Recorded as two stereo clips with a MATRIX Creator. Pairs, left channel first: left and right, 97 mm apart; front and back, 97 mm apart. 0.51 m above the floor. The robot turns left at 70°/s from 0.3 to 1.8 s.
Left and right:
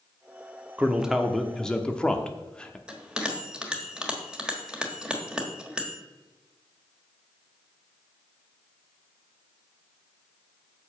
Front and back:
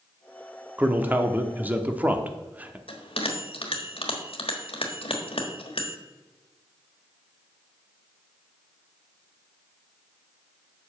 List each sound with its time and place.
0.8 s a man speaking: 140° right, 0.8 m; by 2.8 s 150° left, 0.8 m
2.9 s a bell: 10° right, 1.3 m